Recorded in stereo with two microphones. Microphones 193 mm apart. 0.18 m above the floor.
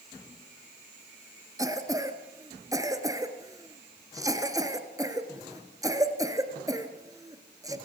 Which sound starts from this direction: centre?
A cough, at 1.6 s.